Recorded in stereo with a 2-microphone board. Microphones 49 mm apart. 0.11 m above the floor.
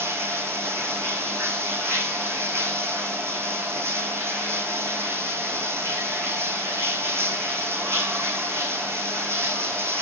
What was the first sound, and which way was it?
Running water, 60° right (ahead or behind).